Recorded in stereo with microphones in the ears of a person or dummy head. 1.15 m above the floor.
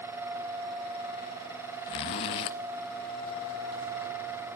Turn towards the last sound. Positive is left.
turn(degrees=35)  # may be behind; listen again after turning